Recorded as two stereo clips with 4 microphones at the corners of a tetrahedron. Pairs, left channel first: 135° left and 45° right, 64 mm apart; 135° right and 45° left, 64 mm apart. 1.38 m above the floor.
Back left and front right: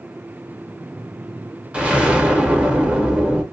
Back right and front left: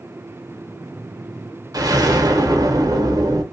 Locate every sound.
1.7 s an explosion: 30° left, 0.7 m